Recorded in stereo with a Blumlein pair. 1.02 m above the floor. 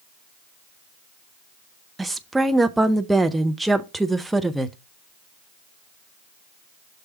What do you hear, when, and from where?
2.0 s a woman speaking: 5° right, 0.7 m